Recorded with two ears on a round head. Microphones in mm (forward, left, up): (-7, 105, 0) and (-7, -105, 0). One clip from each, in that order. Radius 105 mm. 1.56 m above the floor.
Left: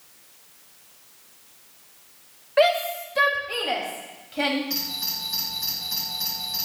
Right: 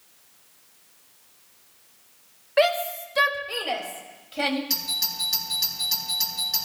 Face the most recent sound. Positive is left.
turn(degrees=-85)